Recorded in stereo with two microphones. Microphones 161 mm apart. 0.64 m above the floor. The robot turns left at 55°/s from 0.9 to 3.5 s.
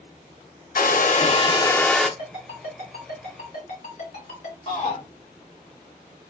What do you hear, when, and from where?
0.8 s a hair dryer: 65° left, 0.5 m; by 2.1 s straight ahead, 0.5 m
2.2 s a ringtone: 25° left (ahead or behind), 2.5 m; by 4.6 s 75° left (ahead or behind), 2.5 m
4.7 s a shout: 45° left (ahead or behind), 1.7 m